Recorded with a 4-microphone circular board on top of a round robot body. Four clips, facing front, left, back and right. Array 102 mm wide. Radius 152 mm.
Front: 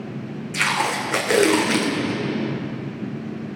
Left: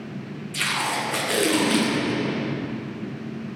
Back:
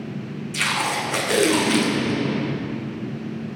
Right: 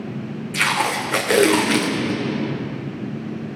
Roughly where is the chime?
I don't hear a chime.